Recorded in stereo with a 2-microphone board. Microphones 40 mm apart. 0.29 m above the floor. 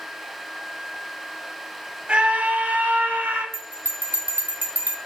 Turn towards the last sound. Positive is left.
turn(degrees=-55)  # may be behind; listen again after turning